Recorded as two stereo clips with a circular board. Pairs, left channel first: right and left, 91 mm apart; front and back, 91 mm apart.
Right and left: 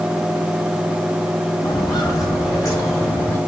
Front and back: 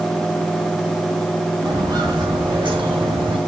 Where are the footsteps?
135° right, 8.5 m; by 3.4 s 150° right, 9 m.